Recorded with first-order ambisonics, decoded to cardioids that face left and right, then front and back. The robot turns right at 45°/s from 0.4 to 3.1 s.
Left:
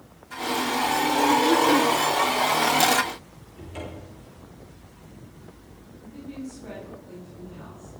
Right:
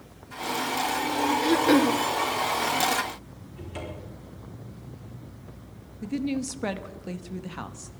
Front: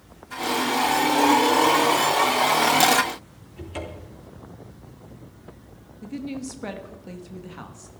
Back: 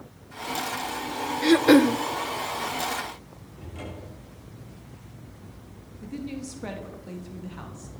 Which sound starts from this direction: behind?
Throat clearing, at 1.4 s.